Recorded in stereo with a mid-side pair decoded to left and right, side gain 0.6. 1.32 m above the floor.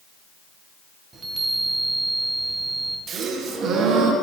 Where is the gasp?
45° right, 0.8 m.